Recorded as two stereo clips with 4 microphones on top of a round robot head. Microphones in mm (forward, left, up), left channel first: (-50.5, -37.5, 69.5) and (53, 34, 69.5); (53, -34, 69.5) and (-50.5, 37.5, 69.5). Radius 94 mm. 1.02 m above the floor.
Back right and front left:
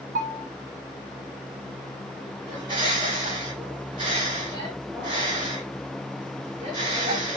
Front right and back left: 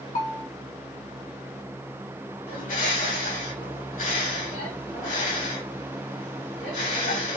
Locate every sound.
0.1 s a bell: straight ahead, 2.5 m
2.5 s a bird: 20° right, 3 m